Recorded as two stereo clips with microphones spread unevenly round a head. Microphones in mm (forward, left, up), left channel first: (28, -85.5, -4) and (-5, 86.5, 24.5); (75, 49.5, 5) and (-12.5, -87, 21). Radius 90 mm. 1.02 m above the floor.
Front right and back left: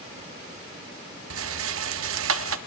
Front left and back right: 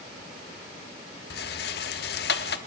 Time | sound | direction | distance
1.3 | a rattle | 100° left | 1.2 m